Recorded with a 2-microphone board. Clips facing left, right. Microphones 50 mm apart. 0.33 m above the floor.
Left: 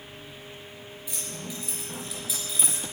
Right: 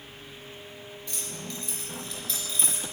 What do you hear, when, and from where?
1.1 s keys jangling: 10° left (ahead or behind), 4.5 m; by 2.8 s 5° left (ahead or behind), 4 m